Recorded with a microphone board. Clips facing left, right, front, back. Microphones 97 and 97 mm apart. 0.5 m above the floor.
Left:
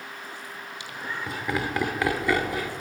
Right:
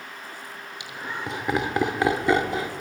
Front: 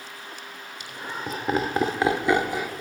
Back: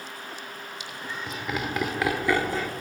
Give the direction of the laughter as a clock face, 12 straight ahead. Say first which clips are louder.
Right 1 dB, front 4 dB; 1 o'clock.